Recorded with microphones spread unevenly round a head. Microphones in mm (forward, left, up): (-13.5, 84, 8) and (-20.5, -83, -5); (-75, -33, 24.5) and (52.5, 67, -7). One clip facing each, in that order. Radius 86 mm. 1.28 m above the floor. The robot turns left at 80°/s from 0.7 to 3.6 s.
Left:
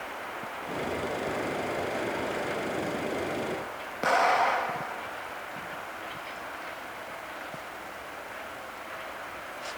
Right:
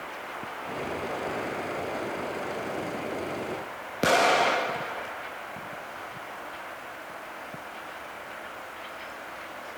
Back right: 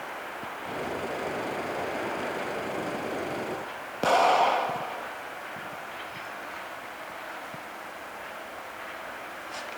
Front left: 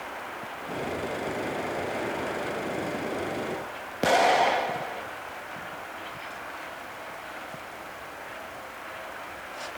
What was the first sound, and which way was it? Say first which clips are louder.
An explosion: right 2 dB, even; 45° right.